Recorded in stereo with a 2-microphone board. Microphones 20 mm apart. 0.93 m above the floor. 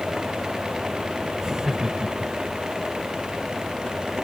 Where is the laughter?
35° right (ahead or behind).